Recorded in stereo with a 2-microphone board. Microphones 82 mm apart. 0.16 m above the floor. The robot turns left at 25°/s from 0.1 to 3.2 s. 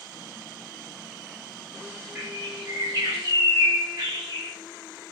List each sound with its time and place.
2.1 s a bird: 40° right (ahead or behind), 7 m; by 4.5 s 65° right (ahead or behind), 7 m